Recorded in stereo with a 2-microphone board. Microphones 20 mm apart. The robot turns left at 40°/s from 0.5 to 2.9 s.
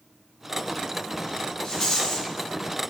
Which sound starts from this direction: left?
A rattle, at 1.6 s.